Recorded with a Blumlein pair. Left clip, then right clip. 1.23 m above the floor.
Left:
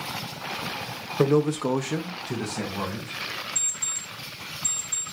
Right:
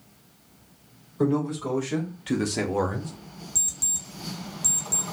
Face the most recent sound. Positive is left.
turn(degrees=-30)